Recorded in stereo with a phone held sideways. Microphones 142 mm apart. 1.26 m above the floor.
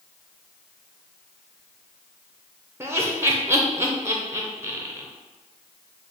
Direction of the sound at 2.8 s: 20° right (ahead or behind).